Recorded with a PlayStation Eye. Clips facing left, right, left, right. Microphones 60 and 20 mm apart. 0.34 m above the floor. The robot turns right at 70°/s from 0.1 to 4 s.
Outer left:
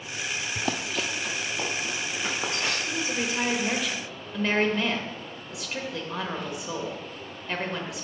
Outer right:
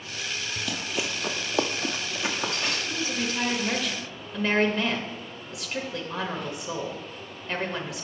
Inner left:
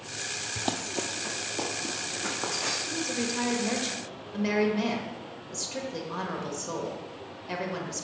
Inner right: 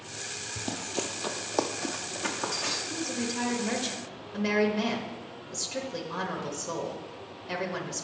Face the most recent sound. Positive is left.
turn(degrees=0)  # may be behind; listen again after turning